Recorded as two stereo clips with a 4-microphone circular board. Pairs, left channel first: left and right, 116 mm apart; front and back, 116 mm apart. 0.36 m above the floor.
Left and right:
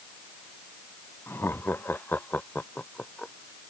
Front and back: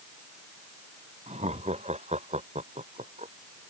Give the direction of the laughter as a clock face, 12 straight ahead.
7 o'clock.